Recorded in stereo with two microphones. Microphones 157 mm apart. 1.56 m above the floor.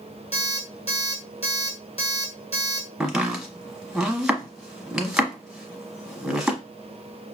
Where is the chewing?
No chewing in this recording.